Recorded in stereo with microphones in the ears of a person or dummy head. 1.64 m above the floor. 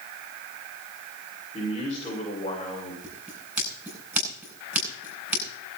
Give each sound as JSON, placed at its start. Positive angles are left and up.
{"t": 1.5, "sound": "a man speaking", "side_deg": 25, "distance_m": 7.0}
{"t": 3.0, "sound": "scissors", "side_deg": 0, "distance_m": 8.0}